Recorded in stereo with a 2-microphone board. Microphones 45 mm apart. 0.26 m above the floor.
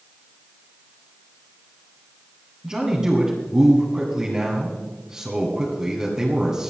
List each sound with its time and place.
2.6 s a man speaking: 15° right (ahead or behind), 2 m